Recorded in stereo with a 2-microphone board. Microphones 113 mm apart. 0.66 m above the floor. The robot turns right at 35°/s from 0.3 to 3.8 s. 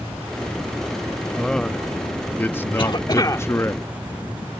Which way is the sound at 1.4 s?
5° left (ahead or behind).